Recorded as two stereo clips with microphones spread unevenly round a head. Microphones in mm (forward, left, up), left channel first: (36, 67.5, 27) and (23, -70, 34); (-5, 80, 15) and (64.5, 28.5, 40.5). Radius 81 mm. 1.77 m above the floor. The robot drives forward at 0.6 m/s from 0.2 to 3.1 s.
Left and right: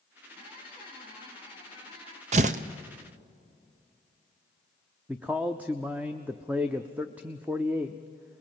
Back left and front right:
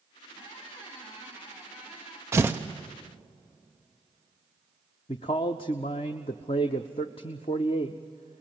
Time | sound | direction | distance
0.3 | a squeak | 160° right | 3.5 m
2.3 | tearing paper | 80° right | 0.6 m
5.1 | a man speaking | 175° right | 0.5 m